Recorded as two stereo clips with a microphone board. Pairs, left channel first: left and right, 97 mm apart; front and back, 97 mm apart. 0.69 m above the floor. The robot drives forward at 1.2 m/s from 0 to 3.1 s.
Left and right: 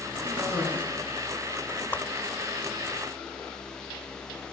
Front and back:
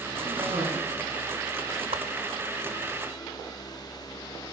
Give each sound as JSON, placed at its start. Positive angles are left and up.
{"t": 0.2, "sound": "a cough", "azimuth_deg": -165, "distance_m": 7.5}
{"t": 1.9, "sound": "a whoosh", "azimuth_deg": 160, "distance_m": 0.8}